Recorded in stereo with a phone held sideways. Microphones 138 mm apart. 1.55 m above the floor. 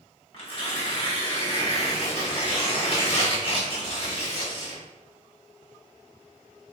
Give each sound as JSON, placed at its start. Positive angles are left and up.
{"t": 0.3, "sound": "tearing paper", "side_deg": 45, "distance_m": 0.9}